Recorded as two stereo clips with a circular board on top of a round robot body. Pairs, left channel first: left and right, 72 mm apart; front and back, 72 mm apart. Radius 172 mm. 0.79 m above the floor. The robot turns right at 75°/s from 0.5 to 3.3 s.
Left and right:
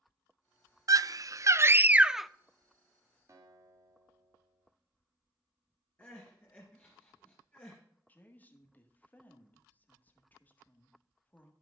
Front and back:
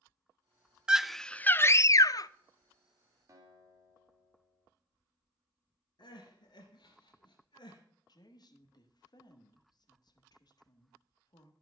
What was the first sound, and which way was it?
A scream, 105° right.